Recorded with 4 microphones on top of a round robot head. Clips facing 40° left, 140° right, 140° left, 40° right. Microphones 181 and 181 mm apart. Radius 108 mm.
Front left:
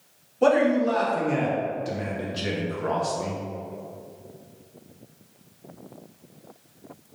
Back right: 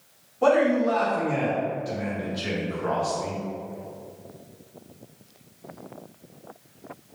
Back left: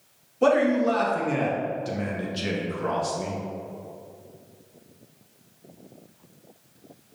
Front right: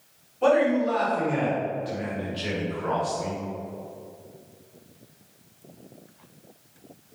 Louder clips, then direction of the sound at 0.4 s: Even, back left 1 dB; 105° left.